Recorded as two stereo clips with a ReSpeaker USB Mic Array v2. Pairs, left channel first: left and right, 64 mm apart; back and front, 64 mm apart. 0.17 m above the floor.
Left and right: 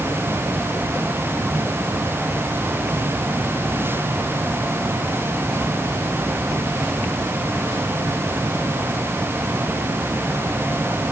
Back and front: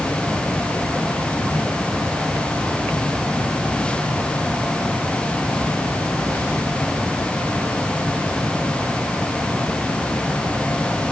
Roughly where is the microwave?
I don't hear a microwave.